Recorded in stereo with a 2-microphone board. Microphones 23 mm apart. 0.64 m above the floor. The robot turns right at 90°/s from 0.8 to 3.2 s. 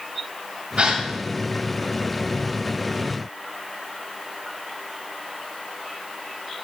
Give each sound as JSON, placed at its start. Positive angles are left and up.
{"t": 0.8, "sound": "a gasp", "side_deg": -55, "distance_m": 1.8}